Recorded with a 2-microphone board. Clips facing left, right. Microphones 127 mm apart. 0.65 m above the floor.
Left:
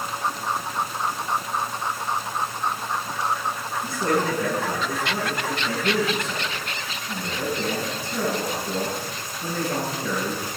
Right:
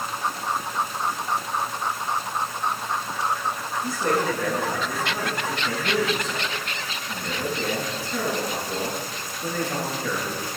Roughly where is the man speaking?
Left.